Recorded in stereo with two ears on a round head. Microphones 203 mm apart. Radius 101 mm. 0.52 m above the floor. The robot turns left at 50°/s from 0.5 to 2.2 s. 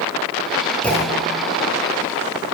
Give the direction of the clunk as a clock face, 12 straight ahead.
6 o'clock.